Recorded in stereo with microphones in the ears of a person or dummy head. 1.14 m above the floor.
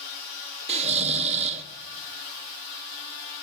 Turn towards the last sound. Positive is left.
turn(degrees=-40)  # may be behind; listen again after turning